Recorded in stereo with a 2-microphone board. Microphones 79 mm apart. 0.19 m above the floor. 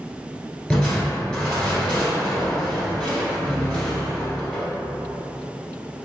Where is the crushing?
15° left (ahead or behind), 1.3 m.